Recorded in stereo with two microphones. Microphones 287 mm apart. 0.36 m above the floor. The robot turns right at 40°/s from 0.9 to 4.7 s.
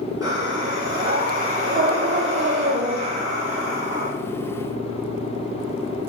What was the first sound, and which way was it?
Breathing, 165° right.